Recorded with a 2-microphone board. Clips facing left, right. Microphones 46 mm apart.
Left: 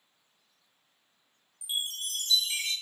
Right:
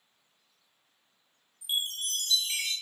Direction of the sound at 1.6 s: 45° right (ahead or behind).